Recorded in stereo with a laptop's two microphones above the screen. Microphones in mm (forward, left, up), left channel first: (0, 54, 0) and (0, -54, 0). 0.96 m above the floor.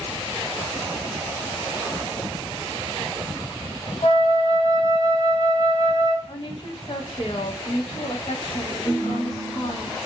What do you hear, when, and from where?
4.0 s a flute: 75° left (ahead or behind), 0.6 m
6.3 s a woman speaking: 50° left (ahead or behind), 0.6 m
8.8 s a ringtone: 25° left (ahead or behind), 1.0 m